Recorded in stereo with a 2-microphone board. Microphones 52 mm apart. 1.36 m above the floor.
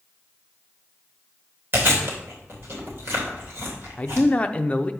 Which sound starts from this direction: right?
Chewing, at 1.7 s.